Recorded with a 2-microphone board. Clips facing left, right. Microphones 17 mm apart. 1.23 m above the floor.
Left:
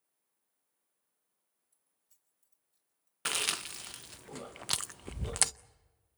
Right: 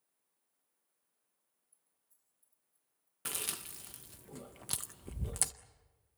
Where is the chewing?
40° left (ahead or behind), 0.5 m.